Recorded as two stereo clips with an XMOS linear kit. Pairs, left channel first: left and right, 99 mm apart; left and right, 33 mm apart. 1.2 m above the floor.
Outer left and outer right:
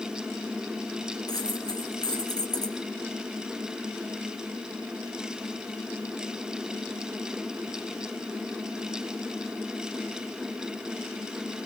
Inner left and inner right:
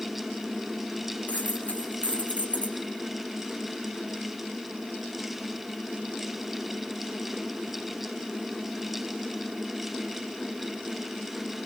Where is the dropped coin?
45° left (ahead or behind), 3 m.